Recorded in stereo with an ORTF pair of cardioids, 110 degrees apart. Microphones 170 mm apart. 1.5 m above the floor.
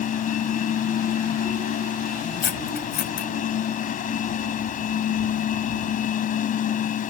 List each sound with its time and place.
0.0 s a machine running: 55° left
2.4 s cutlery clinking: 60° left